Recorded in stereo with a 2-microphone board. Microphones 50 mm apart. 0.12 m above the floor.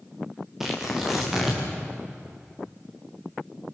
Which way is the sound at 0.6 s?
5° right (ahead or behind).